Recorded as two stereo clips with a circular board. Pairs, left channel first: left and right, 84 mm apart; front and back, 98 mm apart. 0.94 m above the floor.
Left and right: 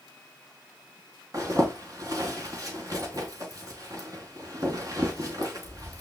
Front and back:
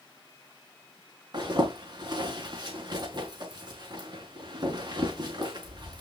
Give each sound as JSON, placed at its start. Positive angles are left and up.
{"t": 1.3, "sound": "a zipper", "azimuth_deg": -135, "distance_m": 5.5}